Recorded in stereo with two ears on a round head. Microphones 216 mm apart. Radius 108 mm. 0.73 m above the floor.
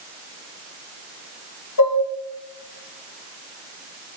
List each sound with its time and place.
1.8 s dishes clattering: 80° left, 4 m